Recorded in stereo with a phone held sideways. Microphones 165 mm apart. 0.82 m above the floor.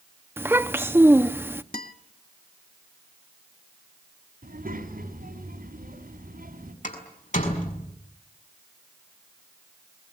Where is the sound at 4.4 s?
75° right (ahead or behind), 4.5 m.